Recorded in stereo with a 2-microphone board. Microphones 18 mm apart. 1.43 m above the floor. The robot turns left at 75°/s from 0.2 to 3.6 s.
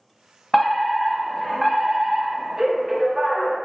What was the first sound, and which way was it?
A fire alarm, 20° left (ahead or behind).